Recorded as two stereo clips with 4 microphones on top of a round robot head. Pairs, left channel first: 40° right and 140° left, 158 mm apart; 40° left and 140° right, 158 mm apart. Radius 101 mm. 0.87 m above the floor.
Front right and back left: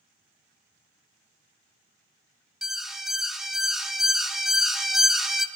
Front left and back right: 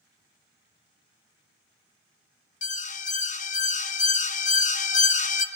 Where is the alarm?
50° left, 0.7 m.